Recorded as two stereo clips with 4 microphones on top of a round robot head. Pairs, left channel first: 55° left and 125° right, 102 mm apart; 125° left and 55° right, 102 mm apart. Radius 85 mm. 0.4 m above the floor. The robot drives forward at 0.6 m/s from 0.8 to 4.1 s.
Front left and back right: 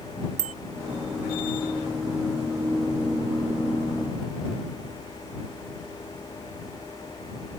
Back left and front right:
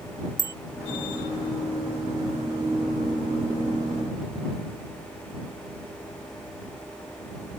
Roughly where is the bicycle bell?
Behind right.